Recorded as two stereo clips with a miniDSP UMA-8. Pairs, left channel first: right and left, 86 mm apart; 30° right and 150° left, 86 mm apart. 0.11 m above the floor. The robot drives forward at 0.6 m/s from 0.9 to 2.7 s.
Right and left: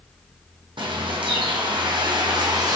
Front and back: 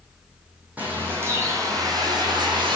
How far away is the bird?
About 1.2 m.